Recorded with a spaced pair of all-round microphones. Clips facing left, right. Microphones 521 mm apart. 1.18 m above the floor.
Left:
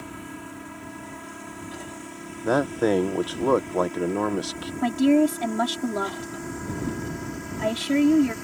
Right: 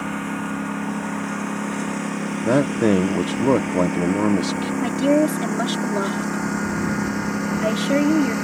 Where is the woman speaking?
15° left (ahead or behind).